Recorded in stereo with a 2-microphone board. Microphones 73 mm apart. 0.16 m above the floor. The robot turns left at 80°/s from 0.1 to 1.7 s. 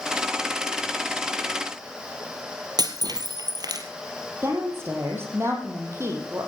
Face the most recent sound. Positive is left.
turn(degrees=-35)  # may be behind; listen again after turning